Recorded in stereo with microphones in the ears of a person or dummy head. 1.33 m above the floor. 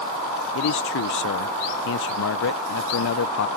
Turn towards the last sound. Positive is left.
turn(degrees=65)  # may be behind; listen again after turning